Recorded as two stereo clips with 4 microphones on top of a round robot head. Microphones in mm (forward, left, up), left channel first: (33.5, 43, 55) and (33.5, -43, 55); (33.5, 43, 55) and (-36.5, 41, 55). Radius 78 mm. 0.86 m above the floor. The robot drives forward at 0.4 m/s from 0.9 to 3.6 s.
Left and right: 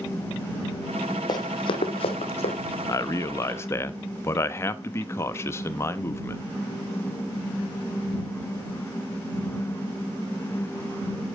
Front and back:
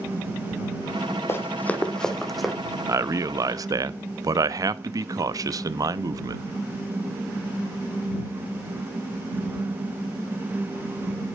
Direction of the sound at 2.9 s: 140° left.